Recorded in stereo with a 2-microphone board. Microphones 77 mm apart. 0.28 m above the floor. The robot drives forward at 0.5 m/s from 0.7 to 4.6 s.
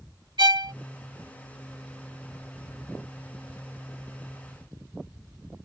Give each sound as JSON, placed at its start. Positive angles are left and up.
{"t": 0.4, "sound": "a violin", "side_deg": -75}